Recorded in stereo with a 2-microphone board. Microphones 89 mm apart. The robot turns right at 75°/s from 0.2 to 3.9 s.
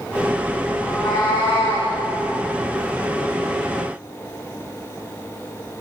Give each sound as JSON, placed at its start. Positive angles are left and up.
{"t": 0.8, "sound": "a cat meowing", "azimuth_deg": 35, "distance_m": 9.0}